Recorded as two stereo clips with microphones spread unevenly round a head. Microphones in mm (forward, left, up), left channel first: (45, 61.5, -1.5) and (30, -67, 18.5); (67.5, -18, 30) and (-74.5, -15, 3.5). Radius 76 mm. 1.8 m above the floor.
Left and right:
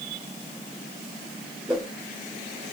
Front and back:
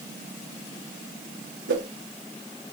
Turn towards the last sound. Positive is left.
turn(degrees=180)